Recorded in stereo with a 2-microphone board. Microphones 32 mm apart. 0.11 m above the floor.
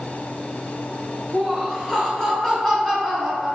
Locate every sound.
1.3 s laughter: 10° left (ahead or behind), 1.4 m